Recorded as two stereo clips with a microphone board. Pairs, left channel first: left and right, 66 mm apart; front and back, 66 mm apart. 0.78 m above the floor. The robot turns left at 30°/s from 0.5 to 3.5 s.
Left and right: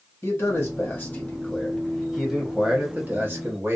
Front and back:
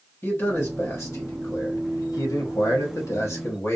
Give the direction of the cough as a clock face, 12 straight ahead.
No cough in this recording.